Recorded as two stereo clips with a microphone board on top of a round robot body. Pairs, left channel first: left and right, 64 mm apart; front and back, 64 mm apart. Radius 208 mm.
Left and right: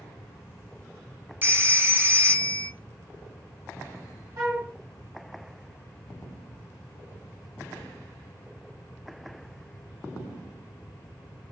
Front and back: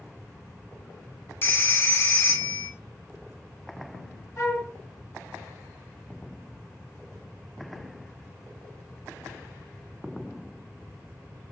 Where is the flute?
45° right, 2.5 m.